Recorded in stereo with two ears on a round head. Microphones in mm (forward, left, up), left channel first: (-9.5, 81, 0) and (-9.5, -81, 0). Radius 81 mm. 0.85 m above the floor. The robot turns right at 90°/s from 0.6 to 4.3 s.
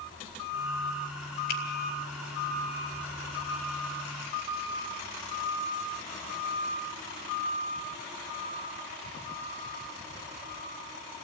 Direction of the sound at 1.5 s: 50° left (ahead or behind).